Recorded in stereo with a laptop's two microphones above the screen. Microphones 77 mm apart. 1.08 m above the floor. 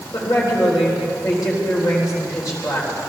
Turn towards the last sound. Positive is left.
turn(degrees=50)  # may be behind; listen again after turning